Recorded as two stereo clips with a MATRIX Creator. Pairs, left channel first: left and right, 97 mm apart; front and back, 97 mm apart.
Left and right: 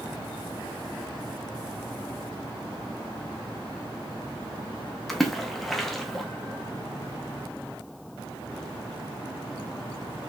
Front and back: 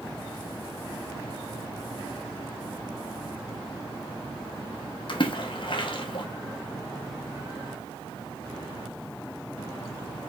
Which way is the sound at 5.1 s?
Straight ahead.